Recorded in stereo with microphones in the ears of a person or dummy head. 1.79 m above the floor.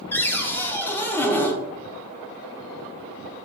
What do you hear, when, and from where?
0.1 s a cupboard door: 10° left (ahead or behind), 0.6 m